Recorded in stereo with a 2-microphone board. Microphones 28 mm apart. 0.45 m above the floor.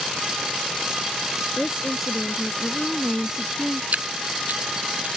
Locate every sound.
1.6 s a woman speaking: 5° left (ahead or behind)
3.9 s dripping: 60° right (ahead or behind)